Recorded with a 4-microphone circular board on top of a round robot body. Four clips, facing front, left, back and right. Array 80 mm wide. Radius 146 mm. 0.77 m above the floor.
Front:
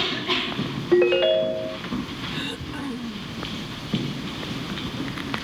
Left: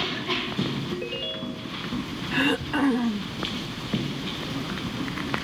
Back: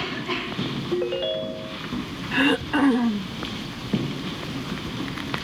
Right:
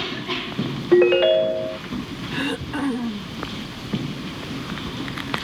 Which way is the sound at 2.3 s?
170° left.